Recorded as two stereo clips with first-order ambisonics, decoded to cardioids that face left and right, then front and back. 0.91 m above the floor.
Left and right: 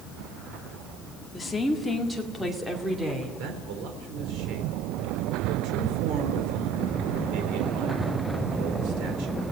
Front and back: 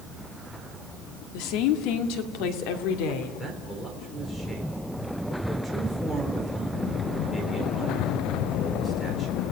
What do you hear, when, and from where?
1.3 s a woman speaking: 10° left, 2 m; by 3.3 s 15° right, 3 m
3.4 s a man speaking: 80° right, 3.5 m